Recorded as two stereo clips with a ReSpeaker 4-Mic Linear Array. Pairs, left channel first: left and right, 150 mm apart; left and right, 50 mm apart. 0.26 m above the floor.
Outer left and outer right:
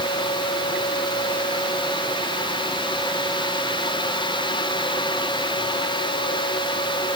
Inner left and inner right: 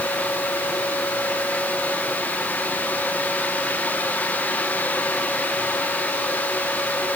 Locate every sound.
Only background noise.